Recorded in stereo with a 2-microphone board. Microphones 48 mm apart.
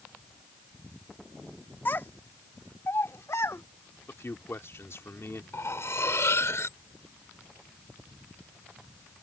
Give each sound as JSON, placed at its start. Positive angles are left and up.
{"t": 1.9, "sound": "a child speaking", "side_deg": 45}
{"t": 4.1, "sound": "a man speaking", "side_deg": 65}
{"t": 5.5, "sound": "cutlery clinking", "side_deg": 70}